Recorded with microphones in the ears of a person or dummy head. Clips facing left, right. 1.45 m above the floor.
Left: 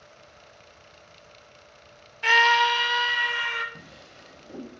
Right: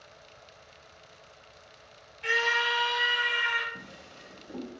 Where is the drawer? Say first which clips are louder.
Even; 35° left (ahead or behind), 4.5 m.